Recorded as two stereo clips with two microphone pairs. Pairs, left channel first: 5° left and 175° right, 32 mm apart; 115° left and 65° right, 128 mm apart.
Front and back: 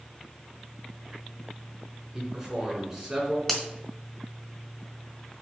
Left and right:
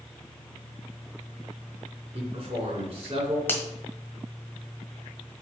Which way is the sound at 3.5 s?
65° left.